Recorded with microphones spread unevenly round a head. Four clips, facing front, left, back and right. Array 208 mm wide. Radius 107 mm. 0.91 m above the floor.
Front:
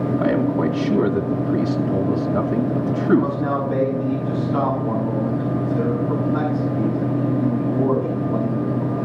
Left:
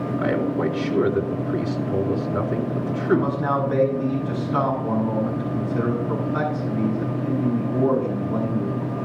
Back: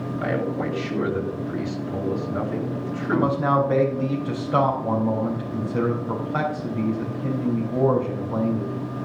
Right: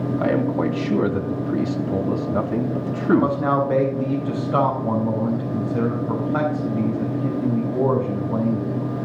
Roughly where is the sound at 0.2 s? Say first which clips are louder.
Right 1 dB, front 4 dB; ahead right.